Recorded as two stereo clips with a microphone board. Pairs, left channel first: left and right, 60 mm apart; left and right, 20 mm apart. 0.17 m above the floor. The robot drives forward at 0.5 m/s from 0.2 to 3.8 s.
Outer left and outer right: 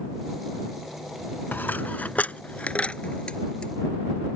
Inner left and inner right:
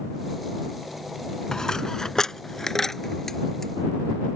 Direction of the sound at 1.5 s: 35° left (ahead or behind).